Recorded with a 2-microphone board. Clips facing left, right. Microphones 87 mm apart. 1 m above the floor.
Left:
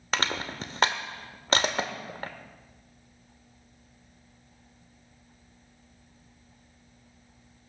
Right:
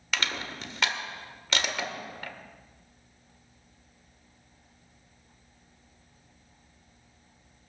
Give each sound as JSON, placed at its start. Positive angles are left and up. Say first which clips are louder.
{"t": 0.1, "sound": "crushing", "louder": "left 3 dB", "side_deg": 40, "distance_m": 1.1}